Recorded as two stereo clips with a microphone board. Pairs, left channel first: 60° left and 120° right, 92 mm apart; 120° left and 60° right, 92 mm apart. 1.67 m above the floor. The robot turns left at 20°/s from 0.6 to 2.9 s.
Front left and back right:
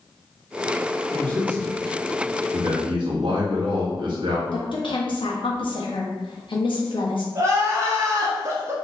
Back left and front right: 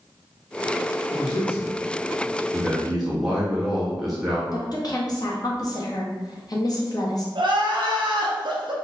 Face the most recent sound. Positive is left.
turn(degrees=-70)